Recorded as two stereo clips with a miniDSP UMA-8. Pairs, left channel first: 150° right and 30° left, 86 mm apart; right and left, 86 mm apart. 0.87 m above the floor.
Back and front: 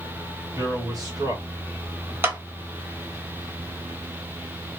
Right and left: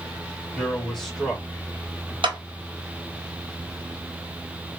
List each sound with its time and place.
0.6 s a man speaking: 15° right, 1.6 m; by 2.1 s 30° left, 1.1 m
2.2 s a clap: 95° left, 0.8 m